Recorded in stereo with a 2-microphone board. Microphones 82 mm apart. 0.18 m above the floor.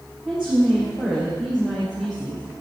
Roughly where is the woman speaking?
Centre.